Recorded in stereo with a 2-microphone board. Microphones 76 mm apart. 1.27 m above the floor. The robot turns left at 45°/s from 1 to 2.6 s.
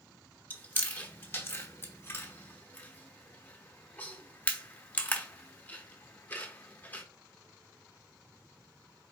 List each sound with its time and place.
0.5 s chewing: 25° left (ahead or behind), 0.8 m